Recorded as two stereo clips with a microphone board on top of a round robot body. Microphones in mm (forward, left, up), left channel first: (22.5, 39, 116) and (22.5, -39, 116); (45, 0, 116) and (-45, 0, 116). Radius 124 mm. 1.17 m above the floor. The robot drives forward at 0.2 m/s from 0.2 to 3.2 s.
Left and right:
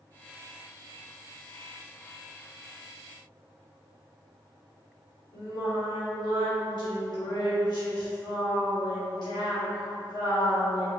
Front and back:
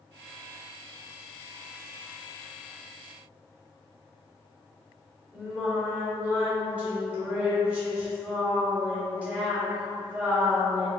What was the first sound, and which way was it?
Singing, 105° left.